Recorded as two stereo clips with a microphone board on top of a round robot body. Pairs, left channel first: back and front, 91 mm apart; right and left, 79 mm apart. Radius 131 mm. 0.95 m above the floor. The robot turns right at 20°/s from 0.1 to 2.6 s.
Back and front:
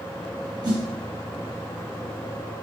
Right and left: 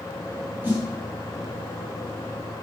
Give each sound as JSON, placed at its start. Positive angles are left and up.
{"t": 0.6, "sound": "a snare drum", "azimuth_deg": 25, "distance_m": 1.6}